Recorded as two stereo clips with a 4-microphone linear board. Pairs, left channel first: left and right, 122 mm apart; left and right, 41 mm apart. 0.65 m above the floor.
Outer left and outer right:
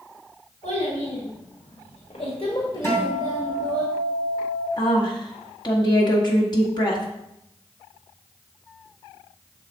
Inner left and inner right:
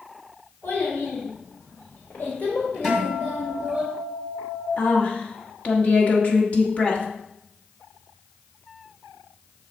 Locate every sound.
0.6 s a child speaking: 85° left, 2.5 m; by 3.8 s centre (ahead or behind), 1.4 m
2.8 s a guitar: 20° left (ahead or behind), 2.5 m
4.8 s a woman speaking: 40° left (ahead or behind), 1.4 m